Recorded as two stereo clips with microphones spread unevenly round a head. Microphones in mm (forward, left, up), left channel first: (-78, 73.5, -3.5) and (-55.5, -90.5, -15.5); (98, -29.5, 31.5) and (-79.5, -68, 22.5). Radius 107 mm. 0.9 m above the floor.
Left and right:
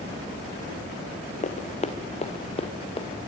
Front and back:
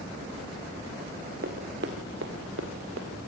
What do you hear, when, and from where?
1.4 s running footsteps: 140° left, 2.5 m; by 3.3 s 155° left, 4.5 m